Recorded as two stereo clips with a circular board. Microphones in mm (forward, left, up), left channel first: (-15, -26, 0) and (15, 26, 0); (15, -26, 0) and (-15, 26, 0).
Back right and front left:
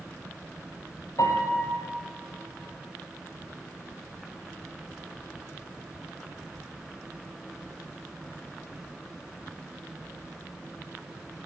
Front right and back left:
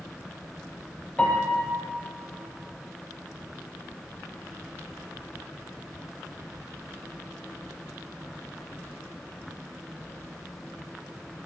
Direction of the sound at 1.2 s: 135° right.